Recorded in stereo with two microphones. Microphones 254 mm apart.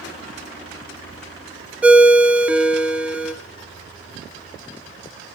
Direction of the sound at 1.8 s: 5° right (ahead or behind).